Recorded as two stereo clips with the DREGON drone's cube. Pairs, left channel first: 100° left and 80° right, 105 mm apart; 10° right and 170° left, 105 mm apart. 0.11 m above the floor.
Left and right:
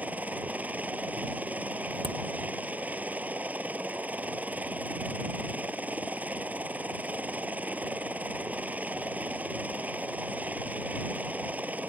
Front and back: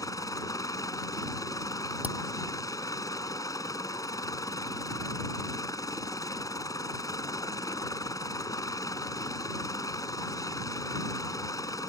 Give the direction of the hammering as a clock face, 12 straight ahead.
4 o'clock.